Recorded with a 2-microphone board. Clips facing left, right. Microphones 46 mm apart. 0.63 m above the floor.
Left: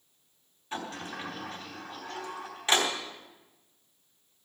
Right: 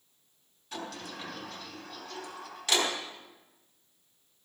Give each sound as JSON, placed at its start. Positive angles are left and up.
{"t": 0.7, "sound": "a sliding door", "side_deg": 30, "distance_m": 3.5}